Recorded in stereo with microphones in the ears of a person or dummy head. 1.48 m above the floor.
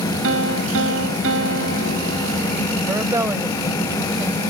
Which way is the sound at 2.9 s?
15° right (ahead or behind).